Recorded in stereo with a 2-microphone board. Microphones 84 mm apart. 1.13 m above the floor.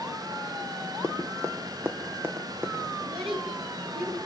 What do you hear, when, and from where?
1.0 s running footsteps: 35° right (ahead or behind), 2.5 m; by 2.8 s 20° right (ahead or behind), 3.5 m
3.0 s a child speaking: 85° right, 10 m